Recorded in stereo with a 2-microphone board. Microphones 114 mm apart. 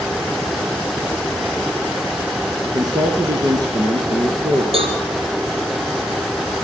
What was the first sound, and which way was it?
A man speaking, 40° right (ahead or behind).